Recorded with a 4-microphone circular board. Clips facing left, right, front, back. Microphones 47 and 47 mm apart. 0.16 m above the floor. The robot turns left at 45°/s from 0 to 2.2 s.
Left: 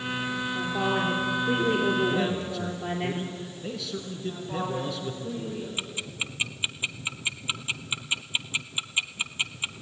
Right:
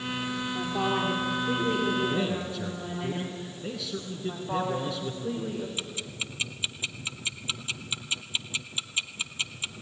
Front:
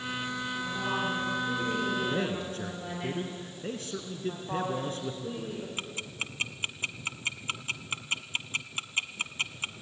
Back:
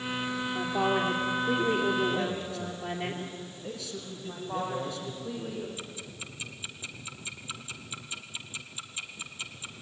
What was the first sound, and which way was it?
A woman speaking, 175° right.